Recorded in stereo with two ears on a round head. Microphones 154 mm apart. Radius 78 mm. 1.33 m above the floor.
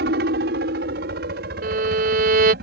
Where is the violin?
60° right (ahead or behind).